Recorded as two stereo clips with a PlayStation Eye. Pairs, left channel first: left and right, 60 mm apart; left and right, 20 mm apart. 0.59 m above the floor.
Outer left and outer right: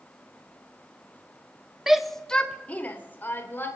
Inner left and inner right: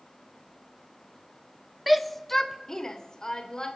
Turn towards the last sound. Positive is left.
turn(degrees=40)  # may be behind; listen again after turning